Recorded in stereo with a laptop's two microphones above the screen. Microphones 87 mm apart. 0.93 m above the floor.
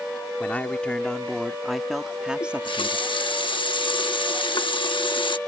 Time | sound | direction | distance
0.4 | a man speaking | 15° left (ahead or behind) | ?
2.4 | a running tap | 75° left (ahead or behind) | ?